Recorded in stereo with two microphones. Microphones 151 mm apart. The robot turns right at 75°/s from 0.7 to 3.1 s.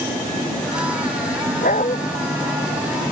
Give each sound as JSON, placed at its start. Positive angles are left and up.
{"t": 1.6, "sound": "a dog barking", "side_deg": 70}